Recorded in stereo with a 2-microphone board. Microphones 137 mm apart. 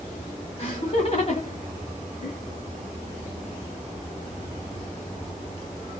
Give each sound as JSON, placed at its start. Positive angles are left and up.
{"t": 0.6, "sound": "laughter", "side_deg": 40, "distance_m": 1.6}